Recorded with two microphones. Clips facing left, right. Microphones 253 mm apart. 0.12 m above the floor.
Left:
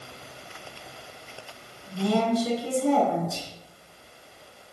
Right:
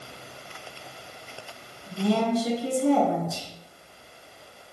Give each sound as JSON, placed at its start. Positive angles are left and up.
{"t": 1.9, "sound": "a woman speaking", "side_deg": -30, "distance_m": 1.3}
{"t": 3.3, "sound": "whispering", "side_deg": -5, "distance_m": 1.1}